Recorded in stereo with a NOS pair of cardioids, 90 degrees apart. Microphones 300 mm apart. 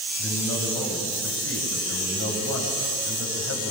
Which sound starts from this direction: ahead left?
A man speaking, at 0.2 s.